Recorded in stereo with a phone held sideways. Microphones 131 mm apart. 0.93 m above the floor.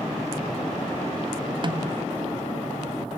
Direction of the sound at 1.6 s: 40° right (ahead or behind).